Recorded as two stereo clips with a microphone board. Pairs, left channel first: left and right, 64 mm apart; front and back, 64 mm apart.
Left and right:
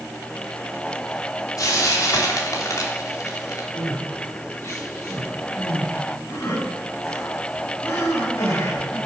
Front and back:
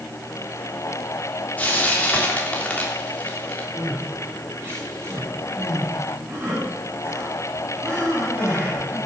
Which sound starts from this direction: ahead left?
Frying, at 1.6 s.